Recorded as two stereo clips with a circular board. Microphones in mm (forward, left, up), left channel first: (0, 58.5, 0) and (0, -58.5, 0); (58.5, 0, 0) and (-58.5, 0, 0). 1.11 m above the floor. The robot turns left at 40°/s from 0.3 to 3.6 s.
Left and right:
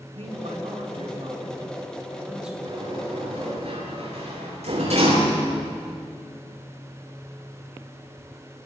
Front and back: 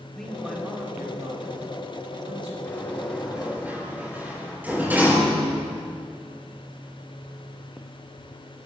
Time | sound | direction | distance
0.1 | a man speaking | 85° right | 6.5 m
2.6 | a sliding door | 65° right | 9.5 m